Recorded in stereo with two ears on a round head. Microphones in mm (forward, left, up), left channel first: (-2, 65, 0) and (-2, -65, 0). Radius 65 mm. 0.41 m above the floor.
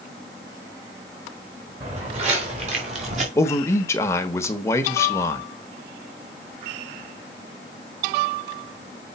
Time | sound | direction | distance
1.8 | footsteps | 45° right (ahead or behind) | 3.5 m
3.4 | a man speaking | 20° left (ahead or behind) | 1.1 m